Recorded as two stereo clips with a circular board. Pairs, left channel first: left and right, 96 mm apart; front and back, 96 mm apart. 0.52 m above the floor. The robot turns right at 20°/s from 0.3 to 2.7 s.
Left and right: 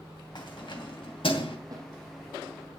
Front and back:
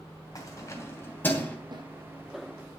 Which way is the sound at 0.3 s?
50° left.